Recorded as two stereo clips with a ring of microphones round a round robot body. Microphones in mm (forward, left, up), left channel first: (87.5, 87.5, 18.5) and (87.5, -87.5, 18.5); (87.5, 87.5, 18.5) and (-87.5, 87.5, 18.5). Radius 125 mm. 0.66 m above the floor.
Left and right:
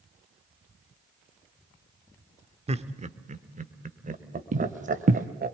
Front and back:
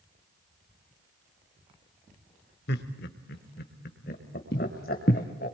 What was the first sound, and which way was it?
Laughter, 35° right.